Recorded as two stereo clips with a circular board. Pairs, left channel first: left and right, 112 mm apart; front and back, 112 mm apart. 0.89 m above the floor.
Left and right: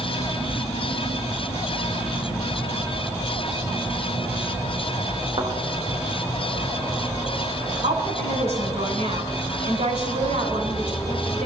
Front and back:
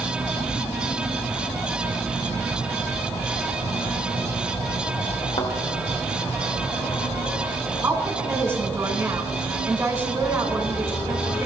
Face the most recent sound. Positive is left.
turn(degrees=-110)